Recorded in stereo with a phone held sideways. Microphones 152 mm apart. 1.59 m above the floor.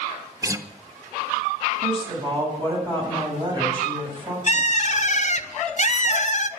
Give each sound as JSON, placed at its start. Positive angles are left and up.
{"t": 0.4, "sound": "a guitar", "side_deg": -20, "distance_m": 0.8}
{"t": 1.8, "sound": "a woman speaking", "side_deg": -35, "distance_m": 8.0}
{"t": 4.5, "sound": "a bird", "side_deg": 50, "distance_m": 0.8}